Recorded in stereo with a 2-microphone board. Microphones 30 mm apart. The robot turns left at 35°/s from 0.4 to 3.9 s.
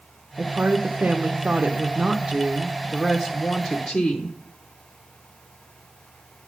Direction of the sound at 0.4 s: 115° right.